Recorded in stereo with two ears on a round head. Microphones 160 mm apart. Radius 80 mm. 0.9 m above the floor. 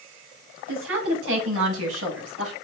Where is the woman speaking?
85° right, 7 m.